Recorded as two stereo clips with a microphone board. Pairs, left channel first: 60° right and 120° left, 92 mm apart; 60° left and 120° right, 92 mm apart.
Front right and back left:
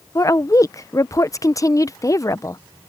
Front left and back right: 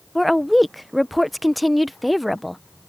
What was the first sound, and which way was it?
A woman speaking, 30° right.